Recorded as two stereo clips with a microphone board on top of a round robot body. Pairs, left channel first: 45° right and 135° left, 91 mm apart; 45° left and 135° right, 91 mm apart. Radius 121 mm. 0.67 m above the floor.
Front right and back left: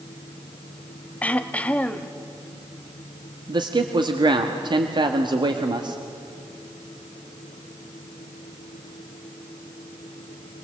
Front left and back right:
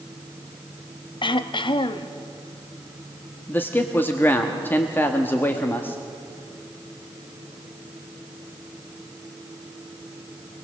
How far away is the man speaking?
About 1.3 m.